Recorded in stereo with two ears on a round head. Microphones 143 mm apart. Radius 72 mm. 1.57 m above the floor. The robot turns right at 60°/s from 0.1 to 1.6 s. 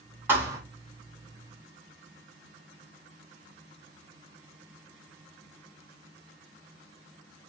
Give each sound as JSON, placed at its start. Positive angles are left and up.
{"t": 0.3, "sound": "a thud", "side_deg": -15, "distance_m": 1.3}